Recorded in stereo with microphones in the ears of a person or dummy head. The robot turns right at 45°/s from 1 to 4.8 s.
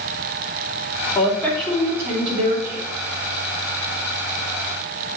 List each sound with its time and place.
1.1 s a woman speaking: 160° left, 2.5 m; by 2.9 s 125° right, 2.5 m